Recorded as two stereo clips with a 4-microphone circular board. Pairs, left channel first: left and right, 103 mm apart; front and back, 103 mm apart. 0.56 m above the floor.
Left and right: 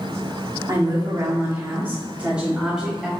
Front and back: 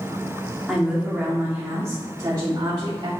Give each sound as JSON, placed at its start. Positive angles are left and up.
{"t": 0.7, "sound": "a woman speaking", "azimuth_deg": -90, "distance_m": 1.5}